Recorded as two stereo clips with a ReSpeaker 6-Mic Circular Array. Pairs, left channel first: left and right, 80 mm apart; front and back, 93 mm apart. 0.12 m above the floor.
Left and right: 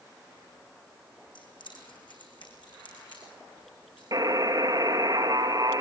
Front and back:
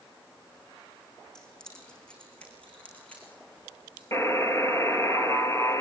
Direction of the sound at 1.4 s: 85° left.